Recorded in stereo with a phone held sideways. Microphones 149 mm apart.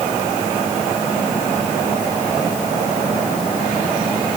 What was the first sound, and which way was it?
Only background noise.